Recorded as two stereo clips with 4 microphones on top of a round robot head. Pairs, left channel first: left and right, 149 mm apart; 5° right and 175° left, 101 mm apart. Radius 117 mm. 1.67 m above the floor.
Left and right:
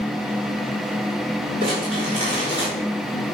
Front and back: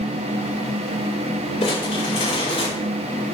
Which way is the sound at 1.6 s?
30° right.